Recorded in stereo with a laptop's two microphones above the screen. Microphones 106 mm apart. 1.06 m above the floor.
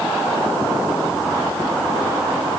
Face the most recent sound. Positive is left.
No sound to turn to.